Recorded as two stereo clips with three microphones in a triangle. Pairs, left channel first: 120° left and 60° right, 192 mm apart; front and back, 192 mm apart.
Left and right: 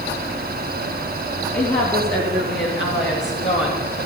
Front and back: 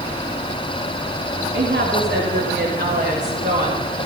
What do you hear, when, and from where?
1.5 s a woman speaking: 160° left, 2 m; by 4.1 s 125° left, 2.5 m